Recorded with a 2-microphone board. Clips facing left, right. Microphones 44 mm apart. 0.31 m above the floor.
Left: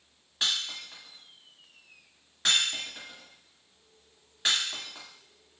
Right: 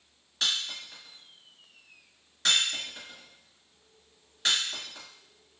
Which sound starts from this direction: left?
Breaking glass, at 0.4 s.